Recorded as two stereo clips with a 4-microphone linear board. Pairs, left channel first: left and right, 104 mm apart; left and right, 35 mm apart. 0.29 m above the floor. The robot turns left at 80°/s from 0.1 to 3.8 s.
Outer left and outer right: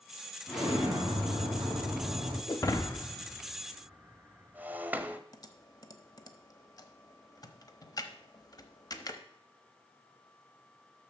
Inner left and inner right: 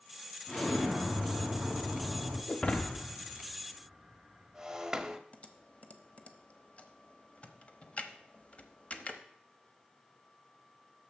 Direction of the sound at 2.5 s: 40° left (ahead or behind).